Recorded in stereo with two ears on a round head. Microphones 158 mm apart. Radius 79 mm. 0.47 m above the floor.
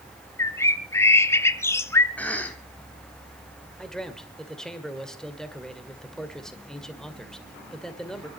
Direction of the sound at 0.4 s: 15° left (ahead or behind).